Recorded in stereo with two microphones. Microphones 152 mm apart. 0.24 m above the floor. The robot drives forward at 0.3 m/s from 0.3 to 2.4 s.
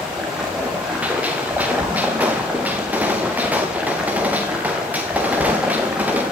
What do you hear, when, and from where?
0.0 s running water: 5° right (ahead or behind), 7 m
1.0 s a gunshot: 10° right (ahead or behind), 5.5 m